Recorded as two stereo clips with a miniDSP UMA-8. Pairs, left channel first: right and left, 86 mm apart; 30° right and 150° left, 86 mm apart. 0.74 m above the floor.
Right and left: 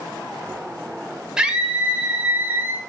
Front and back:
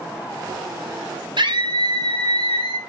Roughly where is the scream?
Behind.